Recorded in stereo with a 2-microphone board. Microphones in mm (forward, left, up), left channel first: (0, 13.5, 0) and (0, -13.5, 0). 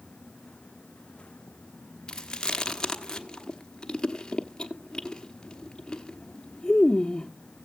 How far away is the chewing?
About 1.1 m.